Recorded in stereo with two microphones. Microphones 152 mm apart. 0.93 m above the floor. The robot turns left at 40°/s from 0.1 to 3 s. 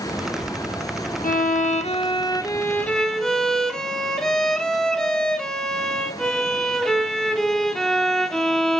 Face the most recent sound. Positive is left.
turn(degrees=5)